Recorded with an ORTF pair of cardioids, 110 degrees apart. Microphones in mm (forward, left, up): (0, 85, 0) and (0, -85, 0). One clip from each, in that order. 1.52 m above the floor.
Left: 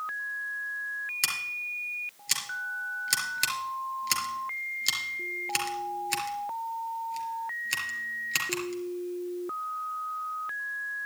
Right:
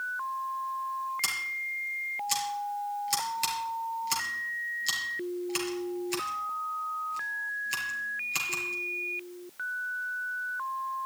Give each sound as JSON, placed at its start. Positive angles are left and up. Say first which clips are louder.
{"t": 1.2, "sound": "scissors", "louder": "left 2 dB", "azimuth_deg": 40, "distance_m": 4.5}